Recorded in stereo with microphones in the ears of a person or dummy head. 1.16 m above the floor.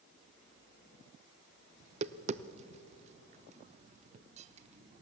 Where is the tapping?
40° right (ahead or behind), 0.6 m.